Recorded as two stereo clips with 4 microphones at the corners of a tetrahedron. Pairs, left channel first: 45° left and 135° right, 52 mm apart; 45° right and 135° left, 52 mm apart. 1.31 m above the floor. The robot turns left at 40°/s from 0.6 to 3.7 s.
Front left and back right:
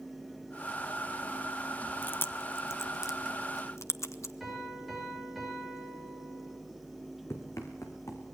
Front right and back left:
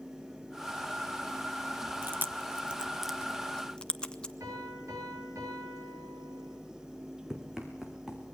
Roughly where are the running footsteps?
Ahead left.